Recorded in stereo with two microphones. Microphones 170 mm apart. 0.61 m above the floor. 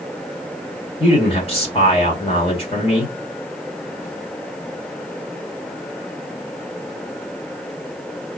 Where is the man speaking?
35° left (ahead or behind), 1.3 m.